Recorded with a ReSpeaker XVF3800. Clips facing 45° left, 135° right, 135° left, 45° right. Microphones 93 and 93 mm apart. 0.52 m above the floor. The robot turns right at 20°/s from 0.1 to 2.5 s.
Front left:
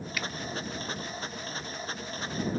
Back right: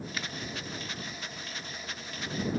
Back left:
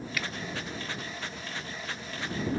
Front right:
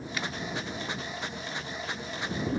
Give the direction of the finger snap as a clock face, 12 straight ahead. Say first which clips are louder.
Front left 4 dB, front right 1 dB; 3 o'clock.